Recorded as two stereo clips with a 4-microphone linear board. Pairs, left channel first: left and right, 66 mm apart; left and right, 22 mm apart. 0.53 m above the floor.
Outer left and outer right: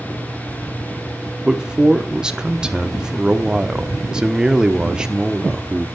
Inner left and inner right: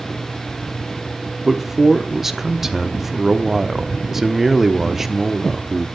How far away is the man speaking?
About 0.9 m.